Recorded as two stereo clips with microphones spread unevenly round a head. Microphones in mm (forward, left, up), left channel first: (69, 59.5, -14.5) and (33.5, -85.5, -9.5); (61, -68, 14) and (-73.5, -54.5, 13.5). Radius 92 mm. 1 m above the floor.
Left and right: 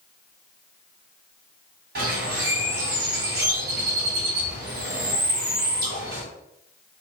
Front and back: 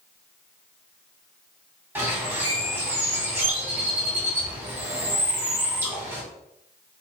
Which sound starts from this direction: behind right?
A bird, at 1.9 s.